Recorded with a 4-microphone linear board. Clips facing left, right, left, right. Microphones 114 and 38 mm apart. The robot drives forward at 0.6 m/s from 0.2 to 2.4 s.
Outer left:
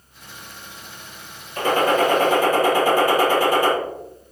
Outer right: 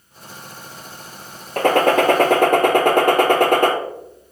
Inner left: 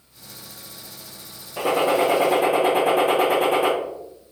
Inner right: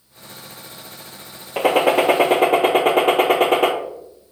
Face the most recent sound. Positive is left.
turn(degrees=-60)  # may be behind; listen again after turning